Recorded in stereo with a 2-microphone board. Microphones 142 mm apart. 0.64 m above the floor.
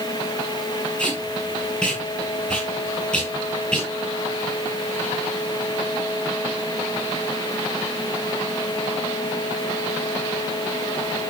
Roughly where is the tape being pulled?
Centre.